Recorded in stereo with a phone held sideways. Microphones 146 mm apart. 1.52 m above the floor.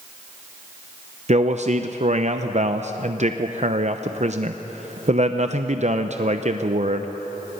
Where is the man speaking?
50° right (ahead or behind), 0.6 m.